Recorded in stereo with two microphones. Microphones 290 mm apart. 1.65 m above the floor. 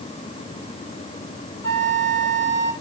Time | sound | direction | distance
1.6 | a flute | 10° left (ahead or behind) | 1.4 m